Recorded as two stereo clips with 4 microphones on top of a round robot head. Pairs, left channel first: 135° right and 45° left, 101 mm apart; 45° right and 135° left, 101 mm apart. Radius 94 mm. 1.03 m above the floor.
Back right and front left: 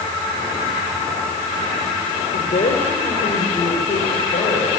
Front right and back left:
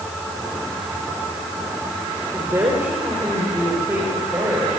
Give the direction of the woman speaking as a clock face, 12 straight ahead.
5 o'clock.